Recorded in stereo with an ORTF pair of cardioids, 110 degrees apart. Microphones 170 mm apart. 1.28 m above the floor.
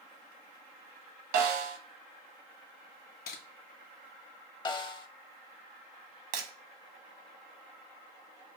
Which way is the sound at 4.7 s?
30° left.